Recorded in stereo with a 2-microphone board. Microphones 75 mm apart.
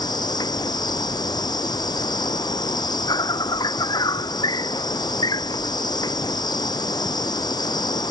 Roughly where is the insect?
Left.